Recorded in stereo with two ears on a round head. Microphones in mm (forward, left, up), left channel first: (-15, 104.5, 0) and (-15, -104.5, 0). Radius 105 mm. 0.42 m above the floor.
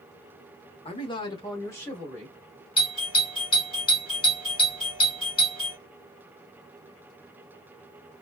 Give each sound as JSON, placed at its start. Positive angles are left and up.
{"t": 0.8, "sound": "a man speaking", "side_deg": 25, "distance_m": 0.8}
{"t": 2.8, "sound": "a doorbell", "side_deg": 25, "distance_m": 1.7}